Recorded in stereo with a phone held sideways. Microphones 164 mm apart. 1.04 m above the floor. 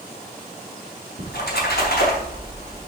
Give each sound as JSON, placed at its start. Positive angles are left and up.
{"t": 1.2, "sound": "a splash", "side_deg": 80, "distance_m": 4.5}